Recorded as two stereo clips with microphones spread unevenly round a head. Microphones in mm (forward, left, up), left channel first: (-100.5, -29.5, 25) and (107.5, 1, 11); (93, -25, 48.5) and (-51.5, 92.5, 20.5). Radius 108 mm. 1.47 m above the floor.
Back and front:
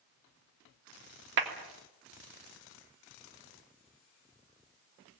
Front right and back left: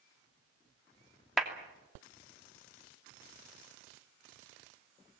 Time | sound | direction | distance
1.4 | a clap | 50° left | 2.5 m